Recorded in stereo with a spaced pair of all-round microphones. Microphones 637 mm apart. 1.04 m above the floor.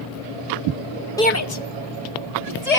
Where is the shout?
5° left (ahead or behind), 0.7 m; by 2.8 s 75° left (ahead or behind), 2 m.